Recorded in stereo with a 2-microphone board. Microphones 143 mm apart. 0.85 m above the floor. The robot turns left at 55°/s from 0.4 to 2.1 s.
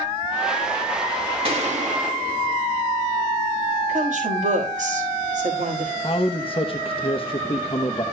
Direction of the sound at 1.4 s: 45° right.